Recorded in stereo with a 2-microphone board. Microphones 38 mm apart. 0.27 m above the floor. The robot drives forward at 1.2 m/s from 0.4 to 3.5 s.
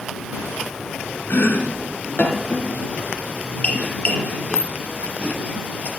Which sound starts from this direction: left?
Chopping, at 1.3 s.